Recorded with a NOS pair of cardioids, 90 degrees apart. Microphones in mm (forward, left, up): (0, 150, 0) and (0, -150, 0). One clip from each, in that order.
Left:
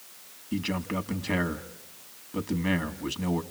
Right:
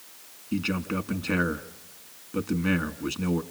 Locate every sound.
0.5 s a man speaking: 5° left, 2 m